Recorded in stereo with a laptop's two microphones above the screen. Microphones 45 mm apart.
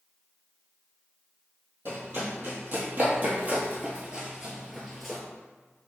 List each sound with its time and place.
1.9 s running footsteps: 50° right (ahead or behind), 1.8 m; by 5.2 s 10° left (ahead or behind), 1.0 m